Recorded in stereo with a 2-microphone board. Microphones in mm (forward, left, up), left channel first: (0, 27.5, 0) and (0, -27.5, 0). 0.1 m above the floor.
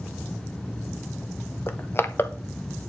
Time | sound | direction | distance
1.7 | crushing | 45° left (ahead or behind) | 0.9 m